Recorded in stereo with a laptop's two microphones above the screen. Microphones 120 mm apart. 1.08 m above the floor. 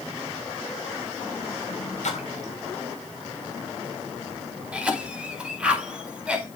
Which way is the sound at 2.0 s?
75° left (ahead or behind).